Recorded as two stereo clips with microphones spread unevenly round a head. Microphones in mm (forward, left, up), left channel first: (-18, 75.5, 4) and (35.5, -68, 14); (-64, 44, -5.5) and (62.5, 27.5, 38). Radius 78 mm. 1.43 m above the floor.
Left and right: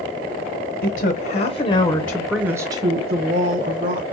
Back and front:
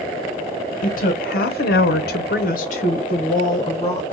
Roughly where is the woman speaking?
Behind left.